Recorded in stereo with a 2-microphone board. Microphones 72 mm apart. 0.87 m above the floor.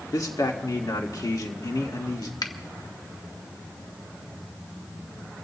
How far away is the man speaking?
About 1.8 m.